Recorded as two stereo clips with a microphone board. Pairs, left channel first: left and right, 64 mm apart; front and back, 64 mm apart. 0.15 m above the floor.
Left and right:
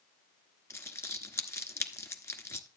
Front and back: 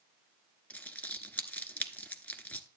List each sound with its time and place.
0.7 s crumpling: 60° left, 1.0 m